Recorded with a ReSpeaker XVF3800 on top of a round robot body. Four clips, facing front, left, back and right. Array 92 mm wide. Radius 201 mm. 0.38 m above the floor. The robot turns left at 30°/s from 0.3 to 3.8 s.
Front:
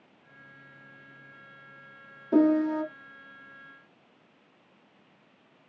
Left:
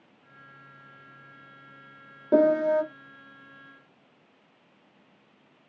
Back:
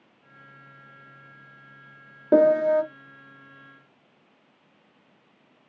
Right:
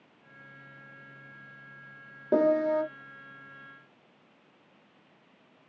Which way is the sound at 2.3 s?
175° right.